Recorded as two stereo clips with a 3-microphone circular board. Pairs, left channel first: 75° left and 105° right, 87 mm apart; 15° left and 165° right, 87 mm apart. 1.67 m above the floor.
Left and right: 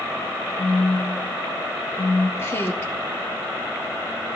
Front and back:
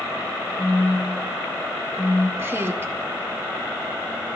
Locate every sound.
0.6 s a phone buzzing: 70° left, 2 m
2.4 s a woman speaking: 135° left, 1.4 m